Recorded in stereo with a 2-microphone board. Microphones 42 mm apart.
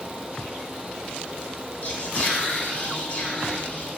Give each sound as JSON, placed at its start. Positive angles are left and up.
{"t": 1.8, "sound": "whispering", "side_deg": 35, "distance_m": 1.6}